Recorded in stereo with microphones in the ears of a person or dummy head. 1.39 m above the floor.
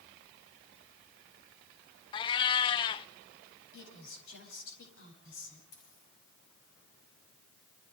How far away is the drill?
I don't hear a drill.